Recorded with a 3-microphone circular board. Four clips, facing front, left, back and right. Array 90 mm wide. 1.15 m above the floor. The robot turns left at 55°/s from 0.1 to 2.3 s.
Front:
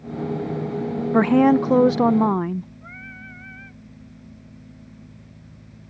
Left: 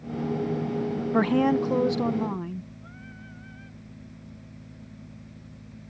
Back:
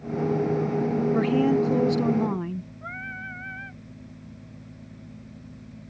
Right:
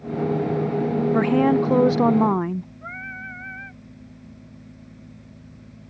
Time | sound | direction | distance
1.1 | a woman speaking | 10° left | ?
2.8 | singing | 125° right | ?